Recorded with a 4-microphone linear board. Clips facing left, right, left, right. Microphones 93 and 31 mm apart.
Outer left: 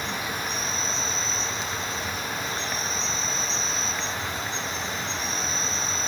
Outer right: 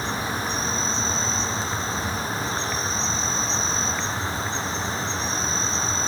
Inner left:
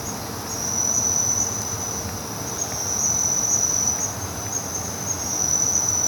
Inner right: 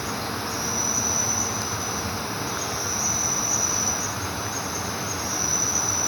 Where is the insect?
35° right (ahead or behind), 1.9 m.